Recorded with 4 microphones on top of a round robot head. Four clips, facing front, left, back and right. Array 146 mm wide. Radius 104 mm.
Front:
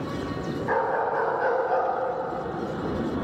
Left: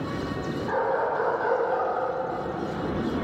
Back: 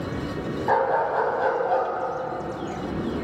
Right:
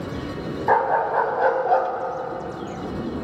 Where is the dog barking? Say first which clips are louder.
Right 7 dB, back 3 dB; 115° right, 3.5 m; by 1.9 s 95° right, 3 m.